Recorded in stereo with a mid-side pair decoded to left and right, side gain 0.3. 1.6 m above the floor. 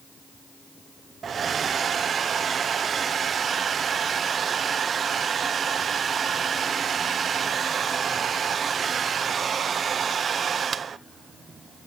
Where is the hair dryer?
65° right, 1.0 m.